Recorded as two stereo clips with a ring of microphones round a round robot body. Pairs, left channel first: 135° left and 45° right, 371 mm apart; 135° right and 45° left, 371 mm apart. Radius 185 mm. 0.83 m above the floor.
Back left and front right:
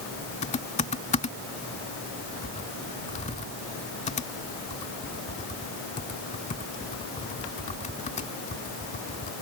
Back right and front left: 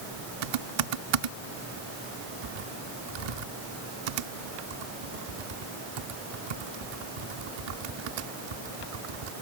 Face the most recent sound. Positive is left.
turn(degrees=60)